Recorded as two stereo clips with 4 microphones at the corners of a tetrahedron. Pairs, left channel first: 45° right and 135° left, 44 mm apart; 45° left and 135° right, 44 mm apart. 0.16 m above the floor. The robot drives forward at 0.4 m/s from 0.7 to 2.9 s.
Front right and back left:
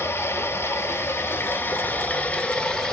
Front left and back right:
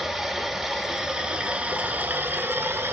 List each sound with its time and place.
0.0 s running water: 50° right, 0.9 m; by 2.9 s 120° right, 0.8 m